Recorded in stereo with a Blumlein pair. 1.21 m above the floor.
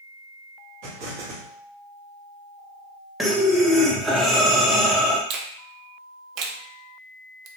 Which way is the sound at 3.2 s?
Straight ahead.